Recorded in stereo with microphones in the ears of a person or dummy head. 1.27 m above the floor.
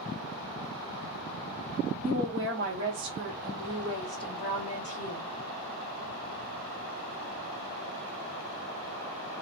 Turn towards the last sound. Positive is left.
turn(degrees=45)  # may be behind; listen again after turning